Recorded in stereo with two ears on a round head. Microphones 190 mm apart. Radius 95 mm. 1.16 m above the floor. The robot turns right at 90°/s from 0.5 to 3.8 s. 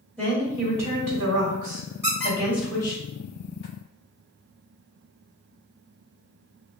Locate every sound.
0.2 s a woman speaking: 175° right, 1.5 m; by 3.0 s 50° left, 1.5 m
2.0 s a squeak: 10° right (ahead or behind), 1.7 m; by 3.7 s 45° left (ahead or behind), 1.7 m